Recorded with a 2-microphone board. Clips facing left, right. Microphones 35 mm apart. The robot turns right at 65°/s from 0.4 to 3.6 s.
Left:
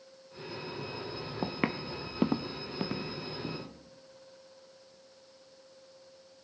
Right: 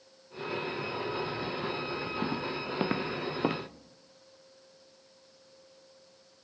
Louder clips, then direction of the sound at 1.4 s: Even; 55° left (ahead or behind).